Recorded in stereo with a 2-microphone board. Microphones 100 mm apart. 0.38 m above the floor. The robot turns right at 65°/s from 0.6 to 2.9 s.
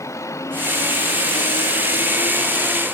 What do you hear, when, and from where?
0.0 s a vehicle: 30° left (ahead or behind); by 2.9 s 5° left (ahead or behind)